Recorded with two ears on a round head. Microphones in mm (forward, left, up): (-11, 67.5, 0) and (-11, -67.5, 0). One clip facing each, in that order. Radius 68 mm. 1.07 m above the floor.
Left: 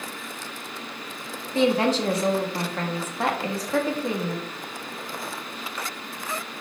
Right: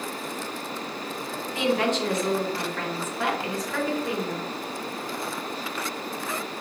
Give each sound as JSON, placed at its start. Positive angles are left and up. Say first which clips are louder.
{"t": 1.6, "sound": "a woman speaking", "louder": "left 3 dB", "side_deg": 30, "distance_m": 1.7}